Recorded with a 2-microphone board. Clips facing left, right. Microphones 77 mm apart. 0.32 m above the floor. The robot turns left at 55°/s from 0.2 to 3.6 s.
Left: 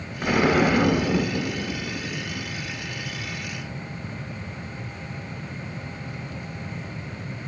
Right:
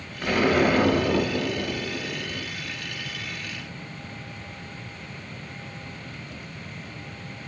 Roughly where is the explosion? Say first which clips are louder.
Left 1 dB; ahead.